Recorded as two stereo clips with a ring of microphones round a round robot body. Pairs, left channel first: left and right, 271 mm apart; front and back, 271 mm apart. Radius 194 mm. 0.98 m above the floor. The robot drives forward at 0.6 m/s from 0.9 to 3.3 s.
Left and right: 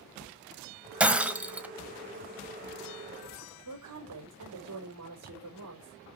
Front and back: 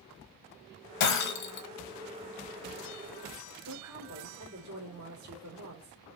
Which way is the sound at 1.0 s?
5° right.